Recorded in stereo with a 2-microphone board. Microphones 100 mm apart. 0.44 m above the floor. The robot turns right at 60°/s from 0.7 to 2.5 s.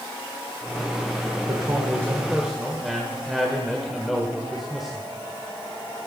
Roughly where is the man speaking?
Ahead right.